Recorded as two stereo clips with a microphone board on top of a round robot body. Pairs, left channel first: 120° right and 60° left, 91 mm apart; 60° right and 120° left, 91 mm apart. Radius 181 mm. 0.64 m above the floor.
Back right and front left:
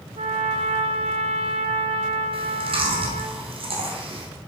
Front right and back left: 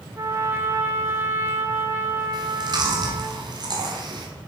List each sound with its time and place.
0.2 s a trumpet: 55° left, 0.8 m
2.3 s chewing: 80° left, 1.4 m